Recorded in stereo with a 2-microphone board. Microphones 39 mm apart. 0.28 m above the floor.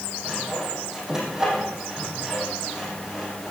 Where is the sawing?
15° right (ahead or behind), 5.5 m.